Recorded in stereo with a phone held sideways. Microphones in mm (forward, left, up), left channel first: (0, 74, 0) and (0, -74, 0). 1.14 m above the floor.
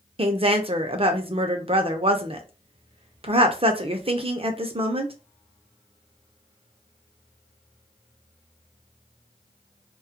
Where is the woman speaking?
40° right (ahead or behind), 0.5 m.